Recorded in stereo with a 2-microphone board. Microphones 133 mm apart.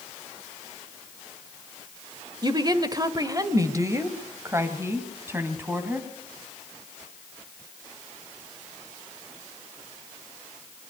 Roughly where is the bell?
I don't hear a bell.